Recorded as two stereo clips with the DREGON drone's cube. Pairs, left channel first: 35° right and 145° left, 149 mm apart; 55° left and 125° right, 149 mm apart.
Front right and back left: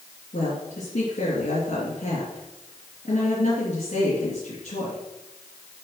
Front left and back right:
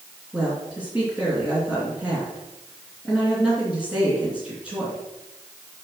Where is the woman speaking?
40° right, 3 m.